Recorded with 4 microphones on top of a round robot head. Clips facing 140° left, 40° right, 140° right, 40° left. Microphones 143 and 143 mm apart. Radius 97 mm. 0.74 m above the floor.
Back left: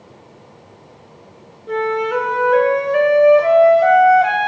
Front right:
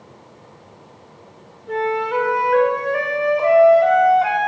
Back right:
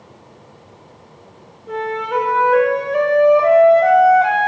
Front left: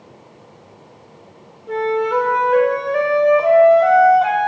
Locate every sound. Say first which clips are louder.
1.7 s a flute: back left 2 dB, front left 4 dB; 135° left, 0.6 m